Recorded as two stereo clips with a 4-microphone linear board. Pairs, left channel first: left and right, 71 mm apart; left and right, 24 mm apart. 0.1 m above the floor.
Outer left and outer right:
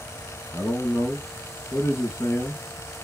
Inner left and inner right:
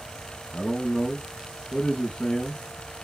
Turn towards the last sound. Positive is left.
turn(degrees=40)  # may be behind; listen again after turning